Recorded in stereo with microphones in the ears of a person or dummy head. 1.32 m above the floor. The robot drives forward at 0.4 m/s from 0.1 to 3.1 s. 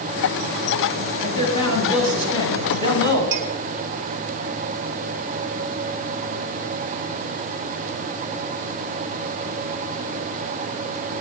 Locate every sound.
1.2 s a man speaking: 25° left (ahead or behind), 6.5 m; by 3.2 s 20° left (ahead or behind), 7 m
3.3 s a clink: 25° right (ahead or behind), 1.8 m